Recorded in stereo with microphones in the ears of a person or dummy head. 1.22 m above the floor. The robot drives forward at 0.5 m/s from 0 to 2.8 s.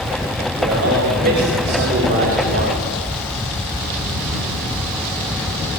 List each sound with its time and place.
0.6 s a man speaking: 60° right (ahead or behind), 4 m; by 2.9 s 50° right (ahead or behind), 4.5 m